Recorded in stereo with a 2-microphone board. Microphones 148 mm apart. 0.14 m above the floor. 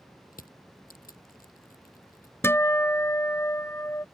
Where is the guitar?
15° left (ahead or behind).